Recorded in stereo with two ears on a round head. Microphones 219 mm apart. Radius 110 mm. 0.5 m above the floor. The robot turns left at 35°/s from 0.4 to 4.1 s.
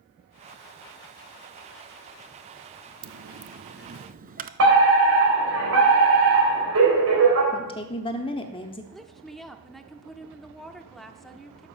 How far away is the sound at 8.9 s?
About 0.7 m.